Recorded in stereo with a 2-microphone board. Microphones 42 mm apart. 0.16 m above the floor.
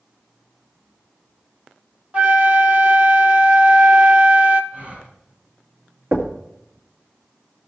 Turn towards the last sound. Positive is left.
turn(degrees=-60)  # may be behind; listen again after turning